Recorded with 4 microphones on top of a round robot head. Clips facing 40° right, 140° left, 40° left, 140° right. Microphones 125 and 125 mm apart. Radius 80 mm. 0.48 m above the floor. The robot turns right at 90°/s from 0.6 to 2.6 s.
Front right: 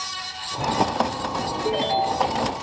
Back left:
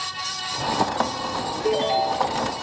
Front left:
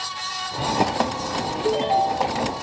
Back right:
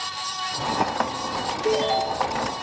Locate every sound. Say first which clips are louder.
1.6 s a ringtone: back left 2 dB, front left 2 dB; 100° left, 1.3 m; by 2.4 s 165° left, 1.3 m